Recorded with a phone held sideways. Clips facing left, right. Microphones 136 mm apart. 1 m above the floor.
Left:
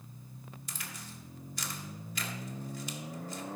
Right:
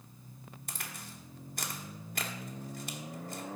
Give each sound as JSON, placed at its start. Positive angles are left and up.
{"t": 0.7, "sound": "a crack", "side_deg": -55, "distance_m": 1.4}